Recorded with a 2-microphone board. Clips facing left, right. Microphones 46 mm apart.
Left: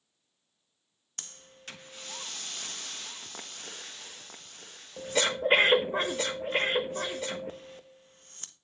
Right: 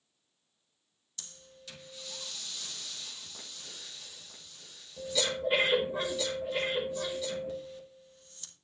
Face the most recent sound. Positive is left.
turn(degrees=45)  # may be behind; listen again after turning